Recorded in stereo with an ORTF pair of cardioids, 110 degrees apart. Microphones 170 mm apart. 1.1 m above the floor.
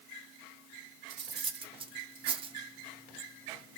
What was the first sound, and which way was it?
Cutlery clinking, 30° right.